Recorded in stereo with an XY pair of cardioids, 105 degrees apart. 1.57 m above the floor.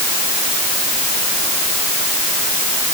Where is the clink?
No clink in this recording.